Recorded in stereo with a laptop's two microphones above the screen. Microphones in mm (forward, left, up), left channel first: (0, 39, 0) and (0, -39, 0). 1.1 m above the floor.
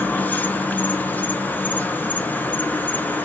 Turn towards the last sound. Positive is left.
turn(degrees=20)  # may be behind; listen again after turning